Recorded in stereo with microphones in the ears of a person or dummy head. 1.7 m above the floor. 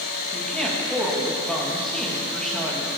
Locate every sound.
0.3 s a woman speaking: centre (ahead or behind), 1.8 m